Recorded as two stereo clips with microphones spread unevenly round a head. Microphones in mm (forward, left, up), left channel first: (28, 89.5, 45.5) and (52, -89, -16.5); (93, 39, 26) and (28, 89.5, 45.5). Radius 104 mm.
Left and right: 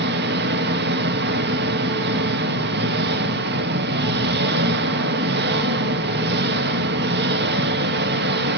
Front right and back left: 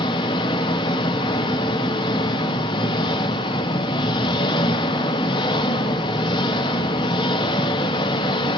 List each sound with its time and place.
0.0 s an engine running: 60° right, 0.7 m